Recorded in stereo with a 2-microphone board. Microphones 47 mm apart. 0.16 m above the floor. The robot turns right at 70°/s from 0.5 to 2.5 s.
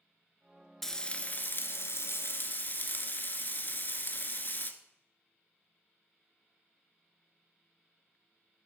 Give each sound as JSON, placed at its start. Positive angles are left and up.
{"t": 0.8, "sound": "frying", "azimuth_deg": 10, "distance_m": 0.8}